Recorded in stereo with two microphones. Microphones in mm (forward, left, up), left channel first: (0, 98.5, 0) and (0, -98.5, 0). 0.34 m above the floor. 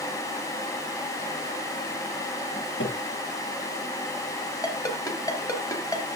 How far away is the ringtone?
About 3 m.